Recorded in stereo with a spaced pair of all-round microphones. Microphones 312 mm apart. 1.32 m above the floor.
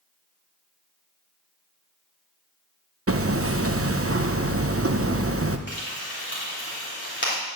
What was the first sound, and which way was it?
Hammering, 45° right (ahead or behind).